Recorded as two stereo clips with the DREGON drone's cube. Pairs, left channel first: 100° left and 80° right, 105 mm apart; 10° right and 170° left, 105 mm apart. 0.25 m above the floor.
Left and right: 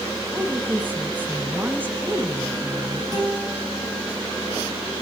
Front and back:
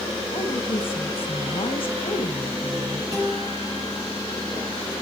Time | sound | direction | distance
0.3 | a woman speaking | 10° right | 2.5 m
3.1 | a guitar | 130° right | 9 m